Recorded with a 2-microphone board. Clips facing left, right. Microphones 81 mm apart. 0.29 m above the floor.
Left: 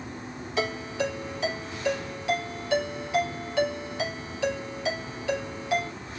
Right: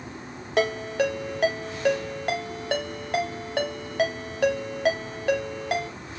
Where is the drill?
No drill in this recording.